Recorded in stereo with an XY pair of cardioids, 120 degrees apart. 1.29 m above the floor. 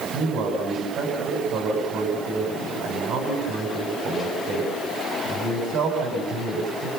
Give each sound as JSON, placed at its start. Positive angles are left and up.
{"t": 0.1, "sound": "a man speaking", "azimuth_deg": -70, "distance_m": 8.0}